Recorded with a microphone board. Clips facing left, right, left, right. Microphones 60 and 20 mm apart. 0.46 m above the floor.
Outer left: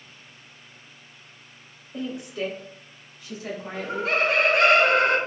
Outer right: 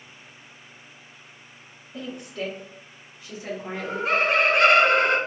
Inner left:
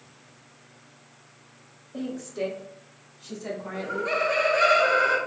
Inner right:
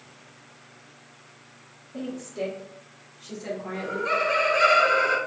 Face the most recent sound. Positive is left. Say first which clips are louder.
# outer right 1 dB, inner right 1 dB
turn(degrees=-30)  # may be behind; listen again after turning